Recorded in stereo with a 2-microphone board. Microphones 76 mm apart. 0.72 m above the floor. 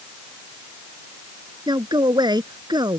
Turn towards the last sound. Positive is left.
turn(degrees=-70)  # may be behind; listen again after turning